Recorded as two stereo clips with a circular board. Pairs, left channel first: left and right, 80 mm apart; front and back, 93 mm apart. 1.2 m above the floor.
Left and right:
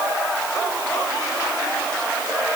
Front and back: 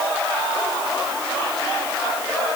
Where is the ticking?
No ticking in this recording.